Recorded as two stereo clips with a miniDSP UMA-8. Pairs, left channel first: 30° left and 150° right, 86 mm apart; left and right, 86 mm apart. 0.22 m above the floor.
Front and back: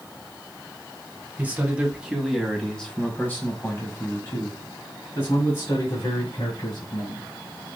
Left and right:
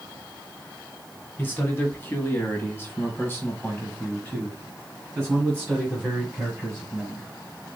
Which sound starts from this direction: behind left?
A man speaking, at 1.4 s.